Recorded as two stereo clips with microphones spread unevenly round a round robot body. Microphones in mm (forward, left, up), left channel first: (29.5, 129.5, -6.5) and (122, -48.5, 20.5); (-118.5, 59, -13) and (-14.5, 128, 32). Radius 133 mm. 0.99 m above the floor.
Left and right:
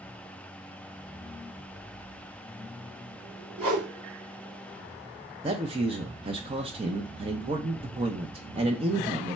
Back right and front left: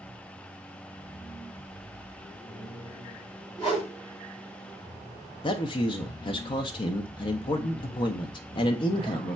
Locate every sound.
3.6 s a whoosh: 70° right, 2.5 m
5.4 s a man speaking: 130° right, 0.6 m